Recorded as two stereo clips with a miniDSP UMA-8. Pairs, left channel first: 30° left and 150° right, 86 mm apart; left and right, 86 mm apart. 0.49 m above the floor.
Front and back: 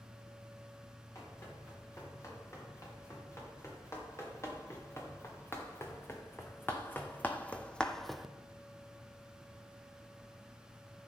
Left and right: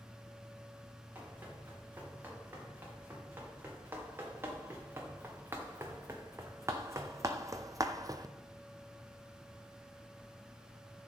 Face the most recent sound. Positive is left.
turn(degrees=-70)